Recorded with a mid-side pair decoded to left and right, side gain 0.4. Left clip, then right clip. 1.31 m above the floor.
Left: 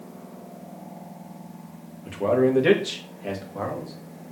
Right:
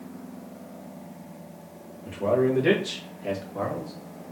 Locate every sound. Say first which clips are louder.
2.0 s a man speaking: left 2 dB; 45° left, 1.5 m; by 3.9 s 5° left, 1.8 m